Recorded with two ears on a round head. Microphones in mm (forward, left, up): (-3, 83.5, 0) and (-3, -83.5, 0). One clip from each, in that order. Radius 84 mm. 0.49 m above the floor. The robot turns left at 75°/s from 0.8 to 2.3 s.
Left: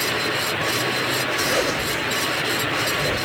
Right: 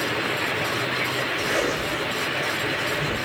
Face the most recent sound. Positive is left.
turn(degrees=95)